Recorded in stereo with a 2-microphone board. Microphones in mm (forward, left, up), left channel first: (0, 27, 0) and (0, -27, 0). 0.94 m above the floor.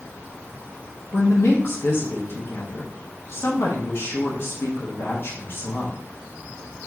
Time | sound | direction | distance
1.1 | a woman speaking | 50° left (ahead or behind) | 0.7 m